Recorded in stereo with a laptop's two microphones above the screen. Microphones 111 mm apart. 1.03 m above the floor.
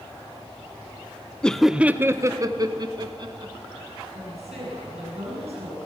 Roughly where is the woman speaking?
Right.